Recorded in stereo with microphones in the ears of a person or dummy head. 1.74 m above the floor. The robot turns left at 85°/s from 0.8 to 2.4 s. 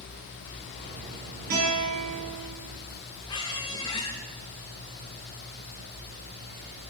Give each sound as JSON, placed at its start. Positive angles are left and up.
{"t": 1.5, "sound": "a guitar", "azimuth_deg": -50, "distance_m": 4.5}
{"t": 3.3, "sound": "a squeak", "side_deg": 20, "distance_m": 0.8}